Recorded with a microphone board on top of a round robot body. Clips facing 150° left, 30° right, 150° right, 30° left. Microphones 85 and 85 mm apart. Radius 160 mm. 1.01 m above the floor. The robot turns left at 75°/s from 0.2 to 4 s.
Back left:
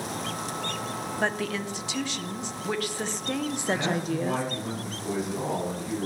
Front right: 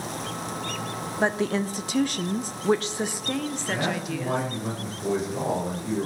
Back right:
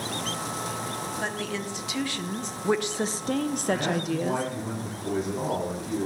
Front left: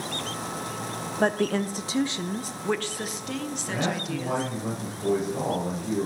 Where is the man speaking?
55° left, 5 m; by 6.1 s 30° left, 5 m.